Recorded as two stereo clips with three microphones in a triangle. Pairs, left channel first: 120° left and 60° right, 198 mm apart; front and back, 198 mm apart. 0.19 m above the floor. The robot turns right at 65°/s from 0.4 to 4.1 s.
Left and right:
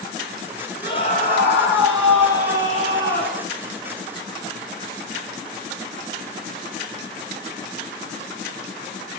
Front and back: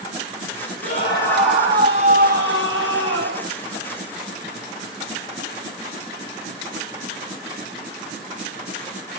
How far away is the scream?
About 5.5 m.